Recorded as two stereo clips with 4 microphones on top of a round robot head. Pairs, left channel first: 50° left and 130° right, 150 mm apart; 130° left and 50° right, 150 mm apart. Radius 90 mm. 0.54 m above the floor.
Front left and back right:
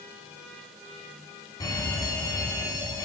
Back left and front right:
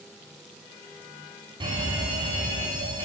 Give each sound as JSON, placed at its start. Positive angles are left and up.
{"t": 1.6, "sound": "a fire alarm", "azimuth_deg": -5, "distance_m": 2.5}